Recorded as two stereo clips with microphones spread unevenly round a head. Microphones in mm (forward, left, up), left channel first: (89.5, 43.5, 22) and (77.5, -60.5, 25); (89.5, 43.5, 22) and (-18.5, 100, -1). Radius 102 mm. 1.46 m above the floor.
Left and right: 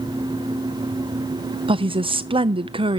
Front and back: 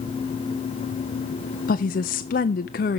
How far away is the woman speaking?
About 0.5 m.